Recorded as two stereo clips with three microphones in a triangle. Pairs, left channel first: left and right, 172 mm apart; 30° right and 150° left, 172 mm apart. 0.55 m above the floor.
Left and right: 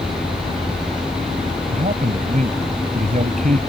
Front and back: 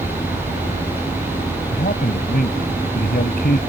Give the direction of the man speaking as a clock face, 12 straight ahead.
2 o'clock.